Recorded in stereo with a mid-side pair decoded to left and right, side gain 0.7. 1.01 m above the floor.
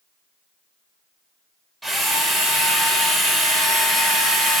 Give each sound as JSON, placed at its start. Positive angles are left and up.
{"t": 1.8, "sound": "a drill", "azimuth_deg": -10, "distance_m": 1.0}